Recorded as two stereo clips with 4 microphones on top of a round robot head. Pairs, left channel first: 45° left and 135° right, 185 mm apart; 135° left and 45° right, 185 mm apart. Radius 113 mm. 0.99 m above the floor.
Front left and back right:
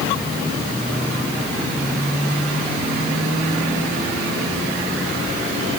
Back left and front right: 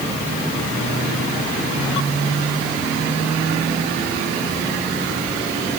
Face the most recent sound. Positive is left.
No sound to turn to.